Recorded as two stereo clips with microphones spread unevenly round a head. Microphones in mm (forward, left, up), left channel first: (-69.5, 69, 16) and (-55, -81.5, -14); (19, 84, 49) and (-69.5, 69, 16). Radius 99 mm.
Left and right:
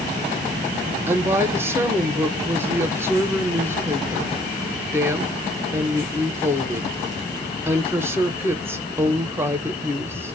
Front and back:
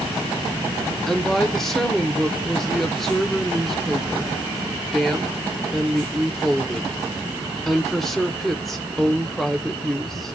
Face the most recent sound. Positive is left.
turn(degrees=-110)